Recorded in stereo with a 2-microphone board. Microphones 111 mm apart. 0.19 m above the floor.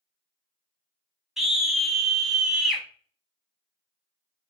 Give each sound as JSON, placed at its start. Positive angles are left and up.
{"t": 1.4, "sound": "a scream", "side_deg": -5, "distance_m": 1.1}